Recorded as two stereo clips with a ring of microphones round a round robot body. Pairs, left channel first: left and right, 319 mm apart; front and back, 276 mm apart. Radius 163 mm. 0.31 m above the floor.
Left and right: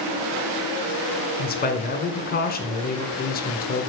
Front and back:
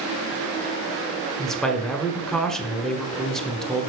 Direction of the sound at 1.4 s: 85° left.